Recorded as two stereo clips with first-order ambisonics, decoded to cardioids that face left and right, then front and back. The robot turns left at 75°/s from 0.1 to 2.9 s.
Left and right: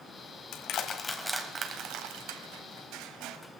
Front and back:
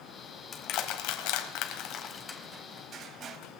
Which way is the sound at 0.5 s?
55° left.